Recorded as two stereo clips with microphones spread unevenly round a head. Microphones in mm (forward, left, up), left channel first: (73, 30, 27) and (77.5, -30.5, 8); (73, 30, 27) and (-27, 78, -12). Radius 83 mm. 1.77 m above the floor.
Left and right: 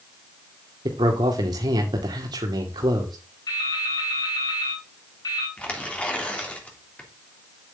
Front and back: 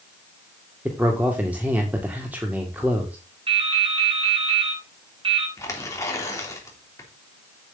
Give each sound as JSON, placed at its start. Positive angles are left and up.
{"t": 0.8, "sound": "a man speaking", "azimuth_deg": -120, "distance_m": 2.0}
{"t": 3.5, "sound": "dripping", "azimuth_deg": 110, "distance_m": 4.5}
{"t": 5.6, "sound": "tearing paper", "azimuth_deg": 30, "distance_m": 3.5}